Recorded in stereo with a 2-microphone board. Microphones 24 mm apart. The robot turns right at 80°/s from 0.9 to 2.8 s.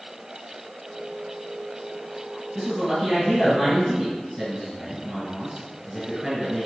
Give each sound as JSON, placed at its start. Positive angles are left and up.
{"t": 2.5, "sound": "a man speaking", "side_deg": -30, "distance_m": 1.9}